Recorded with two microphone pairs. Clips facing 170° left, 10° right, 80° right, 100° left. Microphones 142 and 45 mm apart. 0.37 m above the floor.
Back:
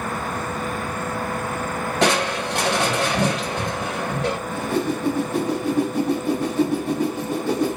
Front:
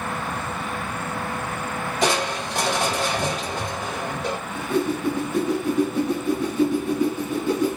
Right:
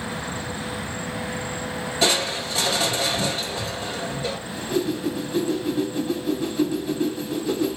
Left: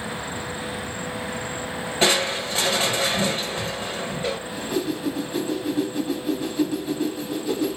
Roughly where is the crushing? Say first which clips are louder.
Back 3 dB, left 2 dB; behind left.